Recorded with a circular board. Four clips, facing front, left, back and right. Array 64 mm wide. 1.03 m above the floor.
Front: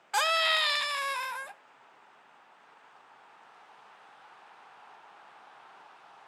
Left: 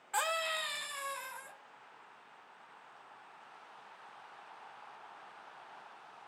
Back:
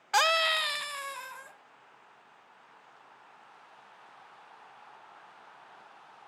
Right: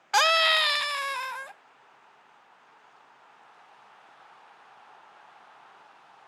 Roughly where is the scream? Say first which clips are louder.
Right 12 dB, back 1 dB; right.